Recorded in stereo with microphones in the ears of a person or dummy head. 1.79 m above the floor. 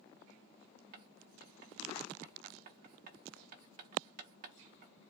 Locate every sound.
0.9 s writing: 45° right (ahead or behind), 1.0 m